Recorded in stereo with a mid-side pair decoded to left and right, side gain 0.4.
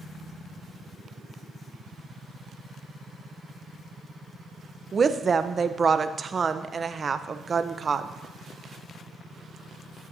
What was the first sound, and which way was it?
A woman speaking, 40° right.